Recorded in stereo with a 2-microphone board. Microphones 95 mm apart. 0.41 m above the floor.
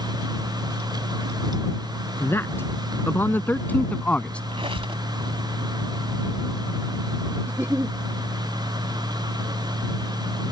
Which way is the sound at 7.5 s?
25° right (ahead or behind).